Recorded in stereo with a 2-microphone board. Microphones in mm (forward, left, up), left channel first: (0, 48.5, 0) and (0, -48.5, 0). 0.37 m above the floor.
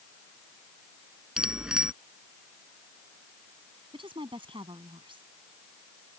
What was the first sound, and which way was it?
A bicycle bell, 10° right (ahead or behind).